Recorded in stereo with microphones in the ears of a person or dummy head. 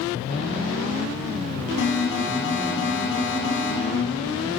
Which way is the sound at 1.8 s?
60° left (ahead or behind).